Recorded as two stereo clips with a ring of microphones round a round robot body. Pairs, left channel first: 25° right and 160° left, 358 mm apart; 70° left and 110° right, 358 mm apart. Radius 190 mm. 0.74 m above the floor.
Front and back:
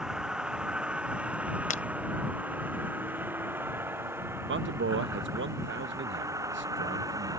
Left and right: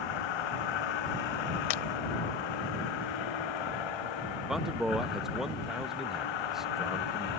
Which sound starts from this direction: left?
A vehicle, at 0.0 s.